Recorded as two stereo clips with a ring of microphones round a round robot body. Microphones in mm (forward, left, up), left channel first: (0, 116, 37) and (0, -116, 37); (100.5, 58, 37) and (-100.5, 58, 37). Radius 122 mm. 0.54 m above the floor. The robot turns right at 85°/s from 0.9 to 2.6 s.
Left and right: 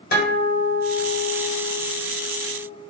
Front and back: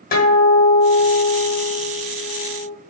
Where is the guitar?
45° left, 1.8 m; by 2.7 s 170° right, 1.8 m.